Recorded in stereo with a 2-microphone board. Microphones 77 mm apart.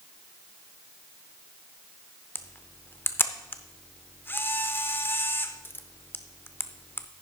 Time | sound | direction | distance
2.4 | a camera shutter | 30° left (ahead or behind) | 0.6 m